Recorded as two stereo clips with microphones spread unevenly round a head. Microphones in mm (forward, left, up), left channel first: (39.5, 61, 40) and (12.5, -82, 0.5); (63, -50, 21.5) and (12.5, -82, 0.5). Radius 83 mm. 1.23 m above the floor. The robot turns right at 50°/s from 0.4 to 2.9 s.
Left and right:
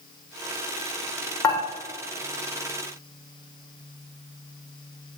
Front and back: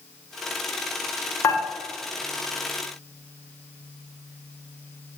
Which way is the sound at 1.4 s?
20° left.